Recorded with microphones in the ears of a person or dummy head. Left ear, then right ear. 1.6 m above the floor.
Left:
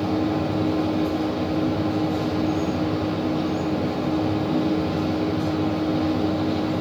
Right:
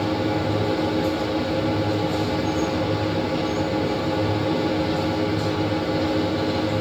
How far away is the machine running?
About 2.5 m.